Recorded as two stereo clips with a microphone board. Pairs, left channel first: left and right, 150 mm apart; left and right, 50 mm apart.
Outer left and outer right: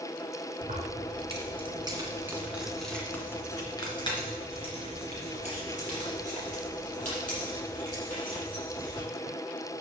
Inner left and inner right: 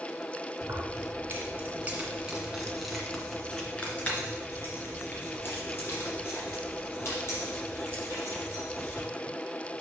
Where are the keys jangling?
55° right (ahead or behind), 3 m; by 9.0 s 60° left (ahead or behind), 7.5 m.